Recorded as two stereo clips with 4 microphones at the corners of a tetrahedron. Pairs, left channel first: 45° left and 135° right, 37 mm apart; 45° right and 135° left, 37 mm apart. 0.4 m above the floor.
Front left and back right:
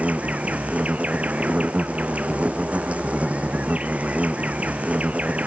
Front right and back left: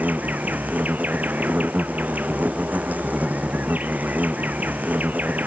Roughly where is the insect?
Behind.